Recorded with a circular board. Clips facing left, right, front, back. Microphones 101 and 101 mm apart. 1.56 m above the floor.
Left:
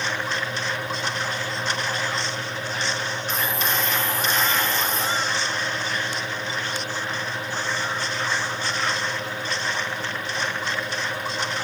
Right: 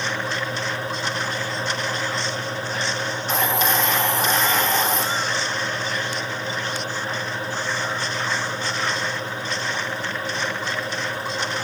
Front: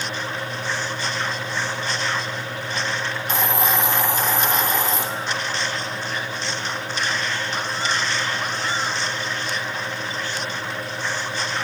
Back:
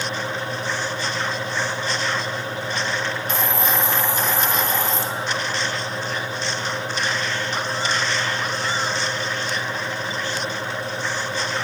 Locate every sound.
3.3 s a hiss: 75° right, 1.3 m